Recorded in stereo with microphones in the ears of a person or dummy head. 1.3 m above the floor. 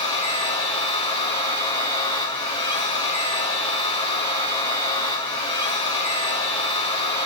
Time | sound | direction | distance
0.0 | a machine running | 30° left (ahead or behind) | 1.8 m